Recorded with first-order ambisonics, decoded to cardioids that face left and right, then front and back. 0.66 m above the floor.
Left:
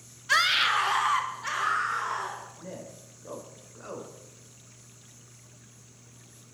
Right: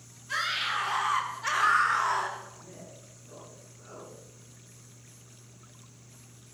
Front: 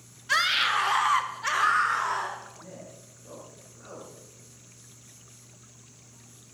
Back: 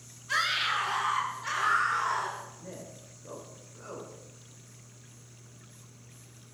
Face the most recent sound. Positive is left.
turn(degrees=105)